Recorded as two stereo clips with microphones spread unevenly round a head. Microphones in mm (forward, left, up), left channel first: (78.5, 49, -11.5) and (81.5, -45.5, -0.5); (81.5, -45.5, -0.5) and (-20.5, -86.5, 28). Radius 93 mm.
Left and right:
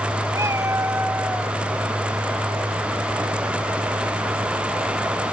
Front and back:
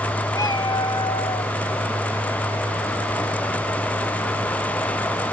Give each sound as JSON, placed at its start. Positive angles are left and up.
{"t": 0.3, "sound": "a cat meowing", "azimuth_deg": -35, "distance_m": 3.5}